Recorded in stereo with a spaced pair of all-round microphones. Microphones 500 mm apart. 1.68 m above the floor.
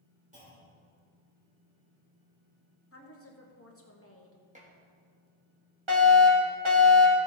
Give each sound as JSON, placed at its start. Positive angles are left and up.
{"t": 0.3, "sound": "a clunk", "side_deg": -15, "distance_m": 4.5}
{"t": 2.9, "sound": "a woman speaking", "side_deg": 25, "distance_m": 1.3}
{"t": 4.5, "sound": "dishes clattering", "side_deg": -15, "distance_m": 1.7}
{"t": 5.9, "sound": "a fire alarm", "side_deg": -60, "distance_m": 2.0}